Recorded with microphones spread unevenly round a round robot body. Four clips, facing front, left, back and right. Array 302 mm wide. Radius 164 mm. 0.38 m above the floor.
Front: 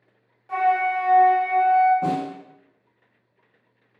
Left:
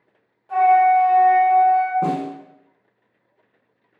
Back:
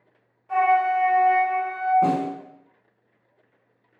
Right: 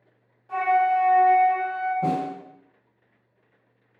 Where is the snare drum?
95° left, 0.8 m.